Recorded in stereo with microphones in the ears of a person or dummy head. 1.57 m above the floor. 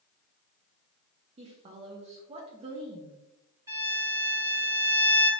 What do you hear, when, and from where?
1.4 s a woman speaking: 30° right (ahead or behind), 0.6 m
3.7 s a violin: 20° right (ahead or behind), 1.6 m